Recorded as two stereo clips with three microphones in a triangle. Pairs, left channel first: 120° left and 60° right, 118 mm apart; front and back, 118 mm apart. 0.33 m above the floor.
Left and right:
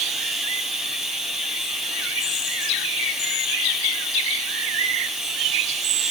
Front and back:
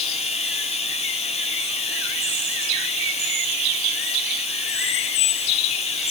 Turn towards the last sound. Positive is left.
turn(degrees=25)